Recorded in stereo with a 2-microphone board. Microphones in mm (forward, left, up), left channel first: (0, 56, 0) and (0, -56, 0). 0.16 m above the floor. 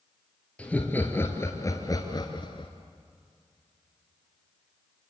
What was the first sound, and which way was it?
Laughter, 10° left (ahead or behind).